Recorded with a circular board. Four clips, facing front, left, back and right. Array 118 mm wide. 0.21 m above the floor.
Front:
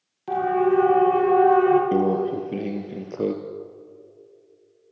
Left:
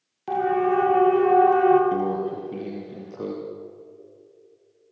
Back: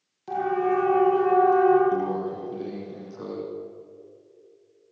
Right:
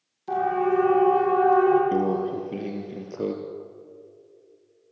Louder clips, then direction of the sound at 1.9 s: Right 1 dB, front 5 dB; 10° right.